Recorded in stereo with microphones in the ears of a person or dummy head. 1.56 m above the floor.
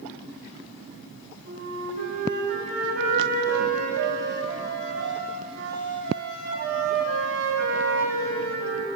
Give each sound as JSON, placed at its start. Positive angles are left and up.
{"t": 1.4, "sound": "a flute", "side_deg": -65, "distance_m": 5.0}